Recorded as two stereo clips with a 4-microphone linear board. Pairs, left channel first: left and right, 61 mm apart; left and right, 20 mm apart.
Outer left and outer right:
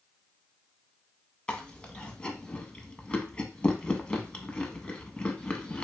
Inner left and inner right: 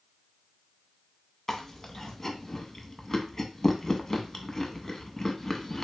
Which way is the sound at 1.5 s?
20° left (ahead or behind).